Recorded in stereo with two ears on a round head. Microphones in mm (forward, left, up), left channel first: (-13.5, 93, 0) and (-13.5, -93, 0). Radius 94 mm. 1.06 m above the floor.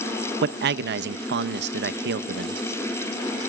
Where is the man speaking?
55° right (ahead or behind), 0.8 m.